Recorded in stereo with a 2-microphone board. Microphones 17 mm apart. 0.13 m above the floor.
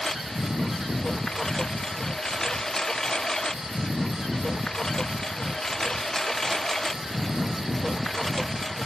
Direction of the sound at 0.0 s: 30° left (ahead or behind).